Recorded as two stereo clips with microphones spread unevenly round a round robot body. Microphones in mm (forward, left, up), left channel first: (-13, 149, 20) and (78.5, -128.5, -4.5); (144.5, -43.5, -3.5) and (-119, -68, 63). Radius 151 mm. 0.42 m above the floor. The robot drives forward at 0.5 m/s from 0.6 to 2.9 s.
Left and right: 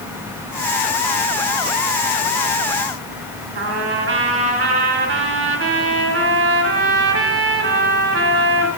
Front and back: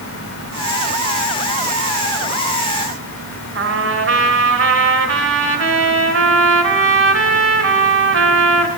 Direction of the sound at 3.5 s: 125° right.